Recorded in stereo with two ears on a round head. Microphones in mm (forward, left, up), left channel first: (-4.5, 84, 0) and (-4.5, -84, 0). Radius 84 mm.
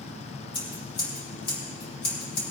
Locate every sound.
0.5 s scissors: 30° left (ahead or behind), 4.5 m